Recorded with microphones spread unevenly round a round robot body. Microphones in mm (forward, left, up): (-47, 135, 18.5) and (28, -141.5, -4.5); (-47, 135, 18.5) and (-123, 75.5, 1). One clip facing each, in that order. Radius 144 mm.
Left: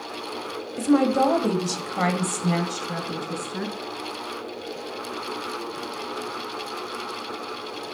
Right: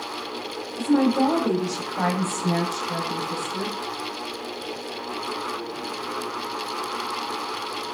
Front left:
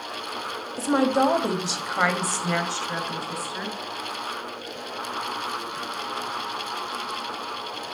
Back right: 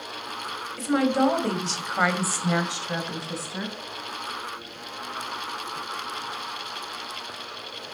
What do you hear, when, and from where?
0.8 s a woman speaking: 95° left, 1.6 m; by 3.7 s 170° left, 2 m